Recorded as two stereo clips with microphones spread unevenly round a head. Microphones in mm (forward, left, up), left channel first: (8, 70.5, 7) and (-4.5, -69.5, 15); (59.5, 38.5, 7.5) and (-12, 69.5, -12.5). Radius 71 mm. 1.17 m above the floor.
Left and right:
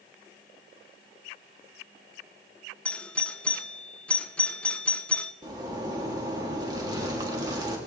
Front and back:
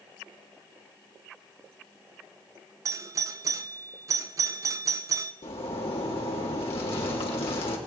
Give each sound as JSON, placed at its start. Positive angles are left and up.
{"t": 2.9, "sound": "a doorbell", "azimuth_deg": 165, "distance_m": 0.7}
{"t": 5.4, "sound": "a zipper", "azimuth_deg": -30, "distance_m": 3.0}